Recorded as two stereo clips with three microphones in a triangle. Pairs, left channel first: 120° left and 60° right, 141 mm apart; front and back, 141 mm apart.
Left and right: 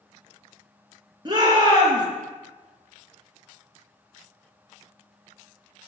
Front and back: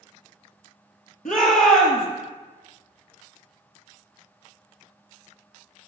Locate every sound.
1.2 s a shout: 5° right, 4.5 m